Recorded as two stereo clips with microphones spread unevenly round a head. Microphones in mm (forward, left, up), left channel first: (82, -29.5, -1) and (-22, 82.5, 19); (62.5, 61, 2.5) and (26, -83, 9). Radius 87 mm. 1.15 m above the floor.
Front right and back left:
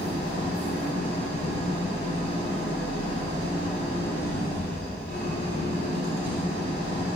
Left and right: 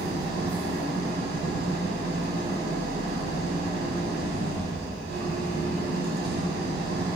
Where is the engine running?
110° right, 4 m.